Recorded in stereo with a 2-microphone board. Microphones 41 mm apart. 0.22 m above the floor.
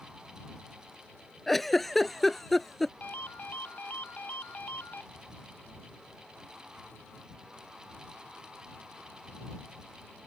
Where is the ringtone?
35° left (ahead or behind).